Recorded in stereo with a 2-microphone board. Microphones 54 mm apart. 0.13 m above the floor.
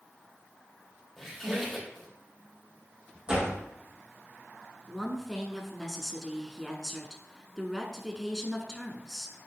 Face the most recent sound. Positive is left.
turn(degrees=0)  # may be behind; listen again after turning